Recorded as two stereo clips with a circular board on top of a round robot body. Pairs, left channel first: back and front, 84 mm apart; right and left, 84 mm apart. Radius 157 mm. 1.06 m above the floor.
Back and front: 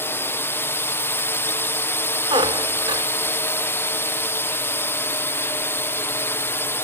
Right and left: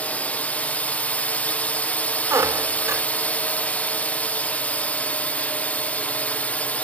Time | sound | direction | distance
0.0 | a drone | 145° right | ?
2.3 | a squeak | 30° left | ?